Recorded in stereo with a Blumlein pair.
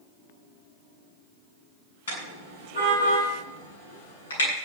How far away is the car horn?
About 8.5 m.